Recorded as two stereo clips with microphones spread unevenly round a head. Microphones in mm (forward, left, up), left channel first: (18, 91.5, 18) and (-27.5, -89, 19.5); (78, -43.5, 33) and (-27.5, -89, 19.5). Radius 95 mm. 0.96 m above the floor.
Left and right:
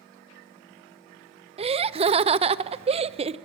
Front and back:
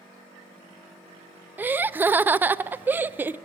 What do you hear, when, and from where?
1.6 s laughter: 115° right, 0.7 m